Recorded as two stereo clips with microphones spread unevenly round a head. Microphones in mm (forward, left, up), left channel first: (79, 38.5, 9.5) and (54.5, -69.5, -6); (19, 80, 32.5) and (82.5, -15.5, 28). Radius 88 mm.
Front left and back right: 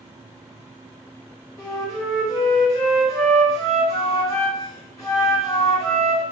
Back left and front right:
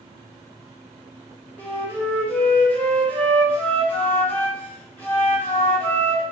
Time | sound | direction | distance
1.6 | a flute | 55° left | 1.1 m